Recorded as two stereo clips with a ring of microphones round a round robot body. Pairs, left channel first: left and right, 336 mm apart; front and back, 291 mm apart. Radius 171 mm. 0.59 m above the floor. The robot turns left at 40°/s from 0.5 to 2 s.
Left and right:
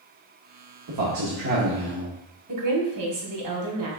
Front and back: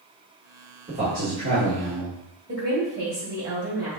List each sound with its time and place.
0.9 s a man speaking: 110° right, 1.1 m; by 2.2 s 155° right, 1.1 m
2.5 s a woman speaking: 125° right, 2 m